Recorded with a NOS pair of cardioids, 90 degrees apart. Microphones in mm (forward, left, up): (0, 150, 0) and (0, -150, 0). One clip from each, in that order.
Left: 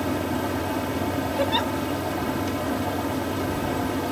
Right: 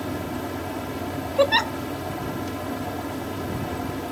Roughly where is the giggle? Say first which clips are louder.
Right 6 dB; ahead right.